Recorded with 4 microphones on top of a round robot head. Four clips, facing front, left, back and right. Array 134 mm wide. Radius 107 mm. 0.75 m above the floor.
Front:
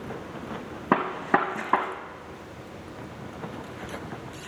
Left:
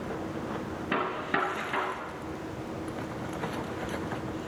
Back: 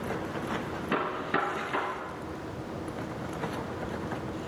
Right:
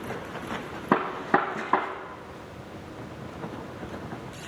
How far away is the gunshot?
About 0.9 m.